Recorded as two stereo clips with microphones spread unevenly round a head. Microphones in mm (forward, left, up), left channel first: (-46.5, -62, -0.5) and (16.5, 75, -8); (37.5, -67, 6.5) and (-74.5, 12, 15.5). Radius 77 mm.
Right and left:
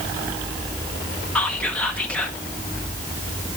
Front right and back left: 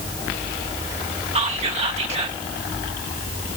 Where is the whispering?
165° left, 0.8 m.